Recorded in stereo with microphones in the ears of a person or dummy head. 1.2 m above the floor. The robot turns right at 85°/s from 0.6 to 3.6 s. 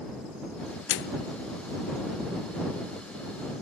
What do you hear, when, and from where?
0.9 s a microwave: 120° left; by 1.3 s 150° left